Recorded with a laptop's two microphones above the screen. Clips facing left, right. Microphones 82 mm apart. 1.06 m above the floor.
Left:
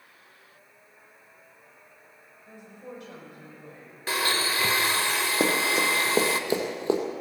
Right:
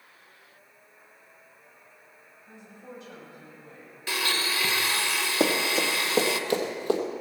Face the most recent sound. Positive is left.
turn(degrees=25)  # may be behind; listen again after turning